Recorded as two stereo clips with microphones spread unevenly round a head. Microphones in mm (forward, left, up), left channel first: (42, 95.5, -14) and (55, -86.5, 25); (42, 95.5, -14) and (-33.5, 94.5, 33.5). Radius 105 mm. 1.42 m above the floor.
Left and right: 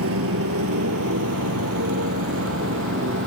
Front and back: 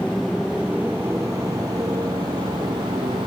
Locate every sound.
0.0 s a motorcycle: 90° right; by 3.3 s 125° right